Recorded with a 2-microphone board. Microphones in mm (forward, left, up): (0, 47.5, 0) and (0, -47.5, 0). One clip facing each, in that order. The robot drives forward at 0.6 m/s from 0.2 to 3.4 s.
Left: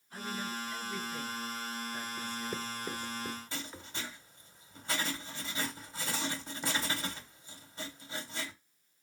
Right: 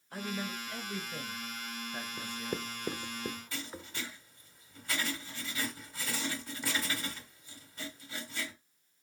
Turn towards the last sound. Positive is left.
turn(degrees=25)  # may be behind; listen again after turning